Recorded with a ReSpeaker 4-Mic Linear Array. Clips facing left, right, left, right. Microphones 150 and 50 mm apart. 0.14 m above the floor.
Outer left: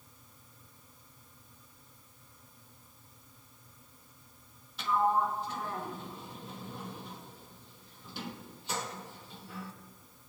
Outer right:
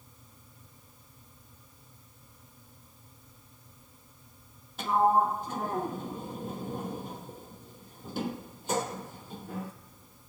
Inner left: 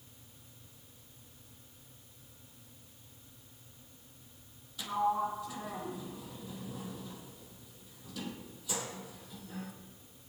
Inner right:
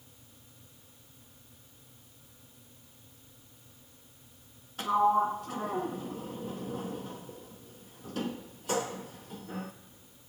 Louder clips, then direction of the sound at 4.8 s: Outer right 4 dB, inner right 6 dB; 50° right (ahead or behind).